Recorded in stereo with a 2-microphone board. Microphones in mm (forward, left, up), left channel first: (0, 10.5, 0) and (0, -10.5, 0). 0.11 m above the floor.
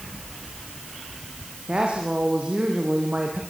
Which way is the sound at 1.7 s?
65° right (ahead or behind).